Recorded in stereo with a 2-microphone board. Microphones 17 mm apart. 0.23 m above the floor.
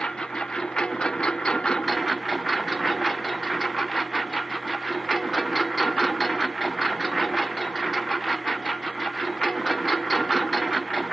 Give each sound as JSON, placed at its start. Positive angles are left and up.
{"t": 0.0, "sound": "a lawn mower", "side_deg": 60}